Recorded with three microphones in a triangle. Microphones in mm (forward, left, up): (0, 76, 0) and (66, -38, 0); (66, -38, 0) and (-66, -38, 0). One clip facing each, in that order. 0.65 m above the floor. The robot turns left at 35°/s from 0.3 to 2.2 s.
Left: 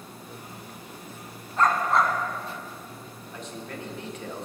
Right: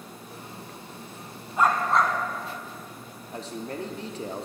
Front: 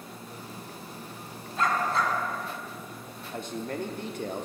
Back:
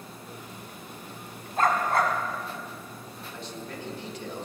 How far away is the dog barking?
About 1.4 m.